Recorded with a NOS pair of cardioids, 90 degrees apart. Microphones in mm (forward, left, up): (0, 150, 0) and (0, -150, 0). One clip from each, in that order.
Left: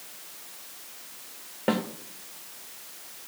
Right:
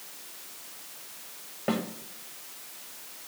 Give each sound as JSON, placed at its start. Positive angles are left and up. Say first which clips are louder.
{"t": 1.7, "sound": "a snare drum", "louder": "left 3 dB", "azimuth_deg": 30, "distance_m": 1.6}